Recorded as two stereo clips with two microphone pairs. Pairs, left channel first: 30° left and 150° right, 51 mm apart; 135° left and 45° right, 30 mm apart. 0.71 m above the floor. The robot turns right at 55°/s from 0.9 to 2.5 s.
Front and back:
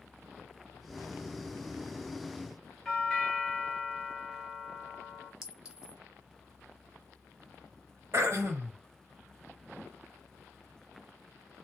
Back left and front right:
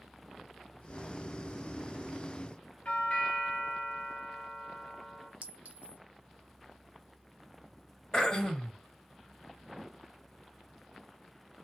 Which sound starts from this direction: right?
A clink, at 5.4 s.